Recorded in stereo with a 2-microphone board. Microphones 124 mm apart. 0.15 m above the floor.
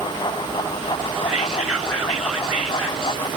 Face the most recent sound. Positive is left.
turn(degrees=-5)  # may be behind; listen again after turning